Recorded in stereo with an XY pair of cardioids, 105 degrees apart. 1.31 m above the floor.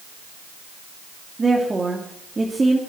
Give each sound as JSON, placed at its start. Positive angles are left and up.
{"t": 1.4, "sound": "a woman speaking", "azimuth_deg": -20, "distance_m": 2.5}